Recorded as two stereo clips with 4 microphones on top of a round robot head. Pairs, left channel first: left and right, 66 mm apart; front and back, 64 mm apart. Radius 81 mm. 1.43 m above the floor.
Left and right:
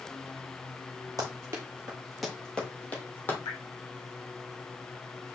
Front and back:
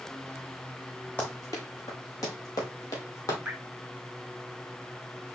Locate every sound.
1.2 s running footsteps: 75° right, 1.8 m; by 3.4 s 35° left, 2.5 m
3.5 s dripping: 105° left, 2 m